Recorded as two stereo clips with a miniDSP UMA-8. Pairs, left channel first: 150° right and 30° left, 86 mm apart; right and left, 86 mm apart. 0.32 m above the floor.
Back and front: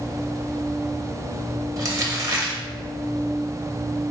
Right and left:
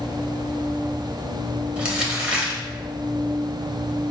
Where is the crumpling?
25° left, 0.8 m.